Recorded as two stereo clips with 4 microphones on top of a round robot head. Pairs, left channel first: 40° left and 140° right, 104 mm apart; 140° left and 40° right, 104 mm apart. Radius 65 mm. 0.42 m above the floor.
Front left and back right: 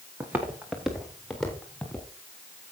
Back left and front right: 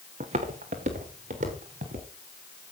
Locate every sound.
0.2 s footsteps: 65° right, 2 m; by 2.1 s 40° right, 4.5 m